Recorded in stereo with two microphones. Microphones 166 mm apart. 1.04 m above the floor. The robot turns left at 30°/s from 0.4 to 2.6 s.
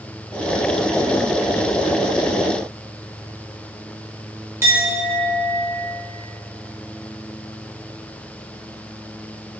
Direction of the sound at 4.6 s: 15° right (ahead or behind).